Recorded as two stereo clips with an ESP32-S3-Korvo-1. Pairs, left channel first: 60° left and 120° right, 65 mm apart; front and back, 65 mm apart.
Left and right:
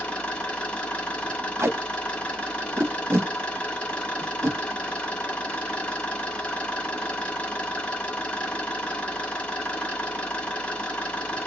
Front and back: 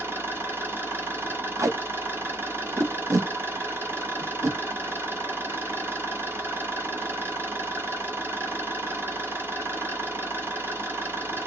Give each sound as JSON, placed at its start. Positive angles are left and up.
{"t": 0.0, "sound": "an engine running", "azimuth_deg": 135, "distance_m": 1.6}
{"t": 1.6, "sound": "tape being pulled", "azimuth_deg": -165, "distance_m": 0.9}